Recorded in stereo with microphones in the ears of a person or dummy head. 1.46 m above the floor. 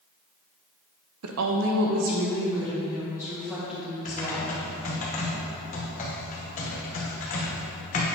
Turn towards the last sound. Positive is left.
turn(degrees=40)  # may be behind; listen again after turning